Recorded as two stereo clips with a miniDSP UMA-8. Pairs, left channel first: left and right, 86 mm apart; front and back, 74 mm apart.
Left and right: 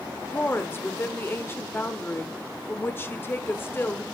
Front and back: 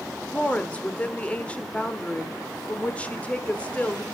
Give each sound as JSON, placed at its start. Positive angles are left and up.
{"t": 0.3, "sound": "a woman speaking", "azimuth_deg": 55, "distance_m": 1.2}